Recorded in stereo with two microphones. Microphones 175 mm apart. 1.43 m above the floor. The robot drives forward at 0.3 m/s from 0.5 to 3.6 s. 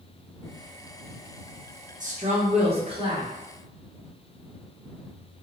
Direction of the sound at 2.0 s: 45° right (ahead or behind).